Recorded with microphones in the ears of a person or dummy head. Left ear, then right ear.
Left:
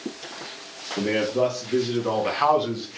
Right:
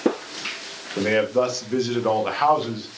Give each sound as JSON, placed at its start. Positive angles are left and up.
{"t": 1.0, "sound": "a man speaking", "side_deg": -60, "distance_m": 1.0}